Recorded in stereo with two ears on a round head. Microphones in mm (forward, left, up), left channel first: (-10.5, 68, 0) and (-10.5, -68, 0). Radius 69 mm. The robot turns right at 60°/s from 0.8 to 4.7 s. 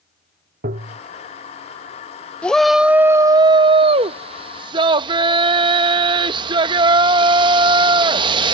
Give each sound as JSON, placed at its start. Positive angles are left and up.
{"t": 0.6, "sound": "tapping", "side_deg": -65}
{"t": 2.4, "sound": "a shout", "azimuth_deg": 165}